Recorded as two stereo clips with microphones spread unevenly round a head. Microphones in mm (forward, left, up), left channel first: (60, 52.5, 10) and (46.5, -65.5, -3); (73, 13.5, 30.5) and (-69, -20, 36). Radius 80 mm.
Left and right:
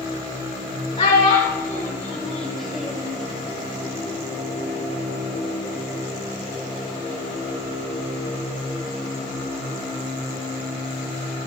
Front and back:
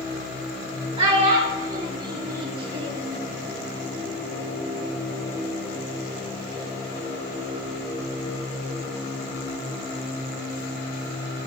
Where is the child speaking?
140° left, 1.9 m; by 3.1 s straight behind, 2 m.